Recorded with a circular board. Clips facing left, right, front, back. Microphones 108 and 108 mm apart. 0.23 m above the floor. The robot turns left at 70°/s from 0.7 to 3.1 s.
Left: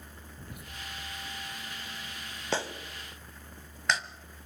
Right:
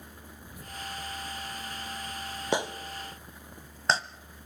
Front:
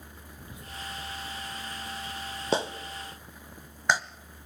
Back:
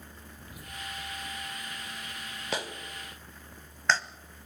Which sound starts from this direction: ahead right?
A clap, at 2.5 s.